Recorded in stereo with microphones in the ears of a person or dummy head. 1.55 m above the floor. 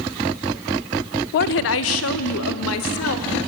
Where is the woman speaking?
45° left (ahead or behind), 0.5 m; by 3.4 s 80° left, 2.5 m.